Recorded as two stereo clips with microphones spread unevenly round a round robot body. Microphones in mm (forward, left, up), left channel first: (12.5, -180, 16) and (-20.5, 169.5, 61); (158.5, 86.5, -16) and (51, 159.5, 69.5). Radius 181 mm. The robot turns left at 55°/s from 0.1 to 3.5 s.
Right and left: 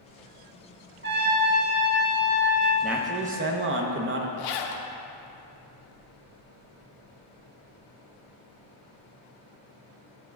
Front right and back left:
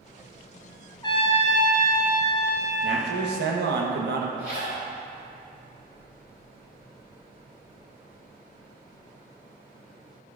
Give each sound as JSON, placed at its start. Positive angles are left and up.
{"t": 1.0, "sound": "a trumpet", "azimuth_deg": 55, "distance_m": 0.9}
{"t": 2.8, "sound": "a man speaking", "azimuth_deg": -170, "distance_m": 0.7}
{"t": 4.4, "sound": "a zipper", "azimuth_deg": -110, "distance_m": 0.6}